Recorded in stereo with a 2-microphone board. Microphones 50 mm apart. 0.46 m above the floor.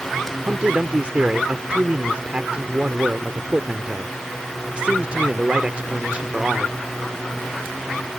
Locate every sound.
0.4 s a man speaking: 25° right (ahead or behind)